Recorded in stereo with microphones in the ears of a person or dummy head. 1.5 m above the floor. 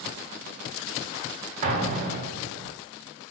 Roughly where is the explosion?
Right.